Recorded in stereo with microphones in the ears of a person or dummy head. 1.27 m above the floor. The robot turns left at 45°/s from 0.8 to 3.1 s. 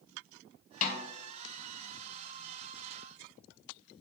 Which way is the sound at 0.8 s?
45° left (ahead or behind).